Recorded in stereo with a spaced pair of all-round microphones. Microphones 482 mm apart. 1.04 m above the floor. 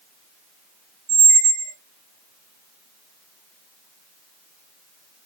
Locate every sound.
1.1 s a squeak: 75° right (ahead or behind), 0.7 m